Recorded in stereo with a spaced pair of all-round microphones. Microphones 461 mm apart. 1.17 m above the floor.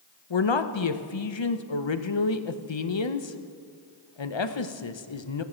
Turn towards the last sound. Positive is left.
turn(degrees=70)  # may be behind; listen again after turning